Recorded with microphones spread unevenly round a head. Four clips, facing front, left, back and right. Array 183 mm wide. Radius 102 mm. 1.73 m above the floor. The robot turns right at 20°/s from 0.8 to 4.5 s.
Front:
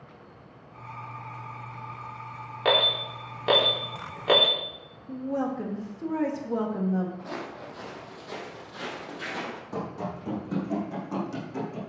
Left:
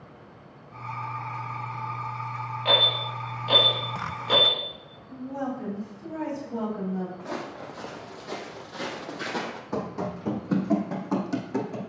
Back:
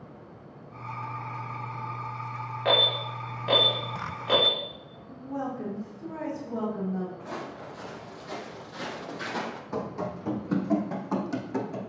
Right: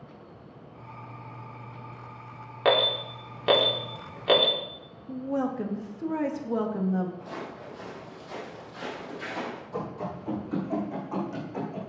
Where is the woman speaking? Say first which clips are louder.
Right 3 dB, front 5 dB; 45° right, 2.5 m.